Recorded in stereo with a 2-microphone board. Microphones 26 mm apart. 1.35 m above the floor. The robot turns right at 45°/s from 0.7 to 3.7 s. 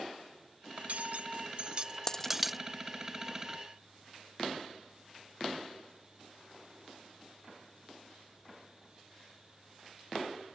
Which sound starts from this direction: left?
A dropped coin, at 2.1 s.